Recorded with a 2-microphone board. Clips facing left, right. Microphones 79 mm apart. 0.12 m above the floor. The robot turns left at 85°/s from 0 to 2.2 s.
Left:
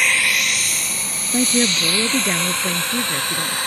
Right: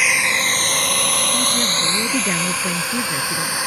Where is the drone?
5° right (ahead or behind); by 3.7 s 10° right (ahead or behind).